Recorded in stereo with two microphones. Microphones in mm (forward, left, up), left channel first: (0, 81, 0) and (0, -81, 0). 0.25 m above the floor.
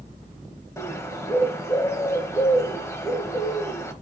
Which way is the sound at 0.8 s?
20° left (ahead or behind).